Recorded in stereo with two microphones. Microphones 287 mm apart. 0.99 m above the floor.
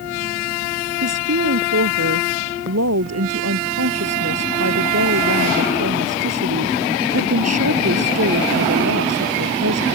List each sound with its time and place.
1.0 s a woman speaking: 65° right (ahead or behind)